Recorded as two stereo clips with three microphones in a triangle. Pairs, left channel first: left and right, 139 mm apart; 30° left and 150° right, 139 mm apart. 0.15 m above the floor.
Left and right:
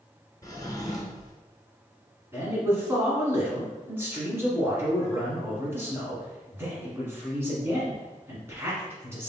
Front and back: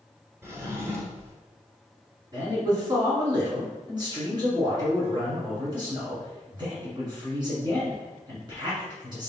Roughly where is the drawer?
Behind left.